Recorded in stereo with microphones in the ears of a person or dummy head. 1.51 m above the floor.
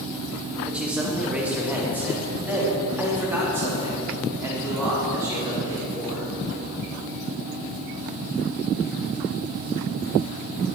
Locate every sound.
0.7 s a man speaking: 5° right (ahead or behind), 2 m; by 6.3 s 15° right (ahead or behind), 5.5 m